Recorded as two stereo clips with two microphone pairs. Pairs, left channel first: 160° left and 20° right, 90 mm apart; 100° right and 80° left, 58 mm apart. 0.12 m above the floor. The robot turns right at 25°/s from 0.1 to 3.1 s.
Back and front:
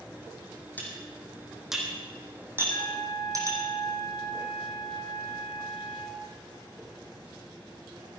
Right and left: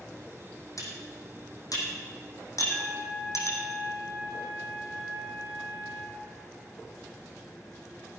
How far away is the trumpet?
About 2.5 m.